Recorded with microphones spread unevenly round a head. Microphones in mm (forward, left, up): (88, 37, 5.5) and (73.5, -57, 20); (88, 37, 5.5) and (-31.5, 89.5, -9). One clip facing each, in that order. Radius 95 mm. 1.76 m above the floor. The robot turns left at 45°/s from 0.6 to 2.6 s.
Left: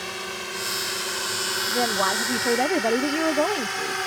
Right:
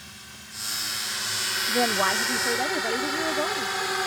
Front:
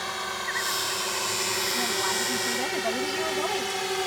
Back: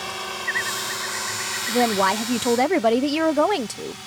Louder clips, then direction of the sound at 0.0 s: Left 15 dB, back 1 dB; 75° left.